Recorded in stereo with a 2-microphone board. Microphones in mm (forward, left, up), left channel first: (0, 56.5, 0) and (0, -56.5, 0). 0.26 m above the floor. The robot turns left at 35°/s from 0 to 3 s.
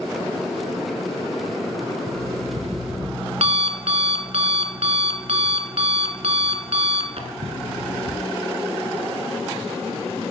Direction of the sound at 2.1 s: 65° right.